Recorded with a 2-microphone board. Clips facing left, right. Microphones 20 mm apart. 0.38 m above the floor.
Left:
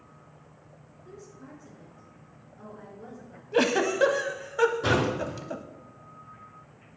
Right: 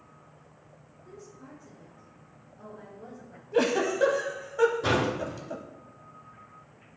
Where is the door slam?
20° left (ahead or behind), 3.5 m.